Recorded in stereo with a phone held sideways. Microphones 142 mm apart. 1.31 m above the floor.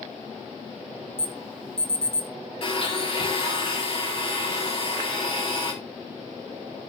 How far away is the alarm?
About 2.5 m.